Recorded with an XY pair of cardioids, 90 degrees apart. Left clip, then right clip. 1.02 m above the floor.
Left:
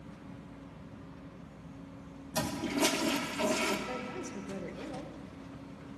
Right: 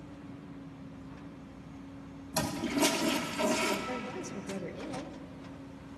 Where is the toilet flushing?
10° right, 1.3 m.